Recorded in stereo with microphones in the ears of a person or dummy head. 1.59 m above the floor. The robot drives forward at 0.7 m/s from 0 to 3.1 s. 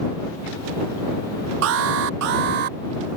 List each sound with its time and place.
1.6 s an alarm: 65° right (ahead or behind); by 2.8 s 45° right (ahead or behind)